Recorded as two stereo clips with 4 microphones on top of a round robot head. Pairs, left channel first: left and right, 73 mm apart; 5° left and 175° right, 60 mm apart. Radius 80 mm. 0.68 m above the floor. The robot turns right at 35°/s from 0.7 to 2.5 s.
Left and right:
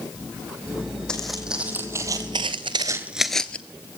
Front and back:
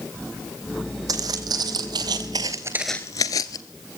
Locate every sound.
1.1 s footsteps: 170° left, 2.5 m; by 3.6 s 15° left, 1.0 m